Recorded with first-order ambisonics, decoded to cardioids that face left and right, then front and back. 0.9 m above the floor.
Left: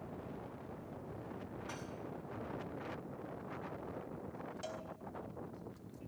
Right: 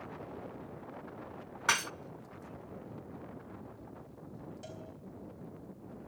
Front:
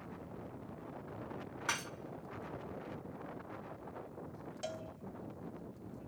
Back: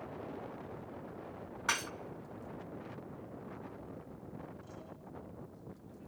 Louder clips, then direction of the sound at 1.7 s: Right 21 dB, back 4 dB; 105° right.